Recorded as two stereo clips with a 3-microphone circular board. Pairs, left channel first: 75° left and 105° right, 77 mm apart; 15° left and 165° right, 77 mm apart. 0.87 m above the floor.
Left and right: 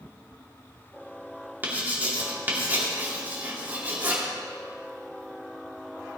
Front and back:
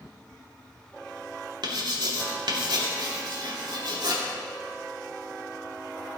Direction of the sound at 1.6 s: 170° right.